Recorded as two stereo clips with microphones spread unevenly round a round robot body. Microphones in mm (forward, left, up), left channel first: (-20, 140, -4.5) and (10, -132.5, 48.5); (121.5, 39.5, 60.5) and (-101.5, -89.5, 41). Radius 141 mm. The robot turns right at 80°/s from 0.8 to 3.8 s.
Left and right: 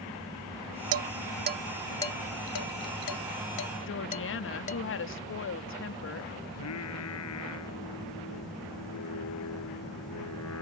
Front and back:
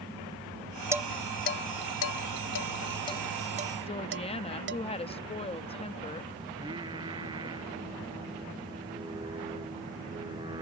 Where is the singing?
135° left.